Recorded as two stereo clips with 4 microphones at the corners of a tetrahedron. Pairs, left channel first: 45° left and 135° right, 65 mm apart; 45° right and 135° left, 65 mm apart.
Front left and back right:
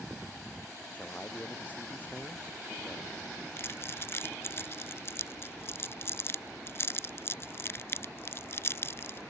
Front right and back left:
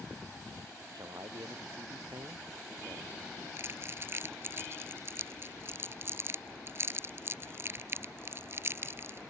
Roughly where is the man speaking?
Behind left.